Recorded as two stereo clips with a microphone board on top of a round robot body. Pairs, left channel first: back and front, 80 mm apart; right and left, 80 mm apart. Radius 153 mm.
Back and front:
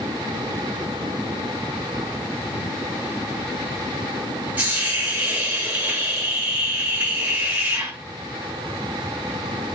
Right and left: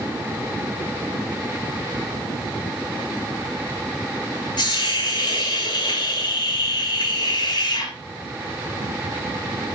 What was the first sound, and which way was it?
A hiss, 75° right.